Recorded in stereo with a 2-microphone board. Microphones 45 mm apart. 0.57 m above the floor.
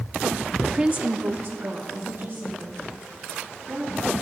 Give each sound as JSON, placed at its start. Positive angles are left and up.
{"t": 0.6, "sound": "a woman speaking", "side_deg": 5, "distance_m": 0.7}